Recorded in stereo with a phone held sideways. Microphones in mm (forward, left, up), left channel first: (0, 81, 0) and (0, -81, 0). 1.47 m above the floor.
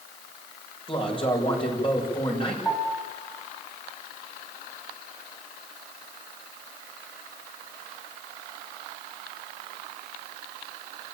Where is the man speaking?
35° left (ahead or behind), 6.5 m.